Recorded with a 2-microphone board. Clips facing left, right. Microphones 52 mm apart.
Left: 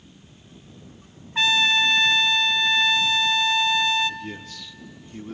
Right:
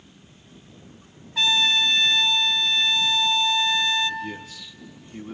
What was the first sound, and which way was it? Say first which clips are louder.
A trumpet: left 2 dB; 40° left (ahead or behind).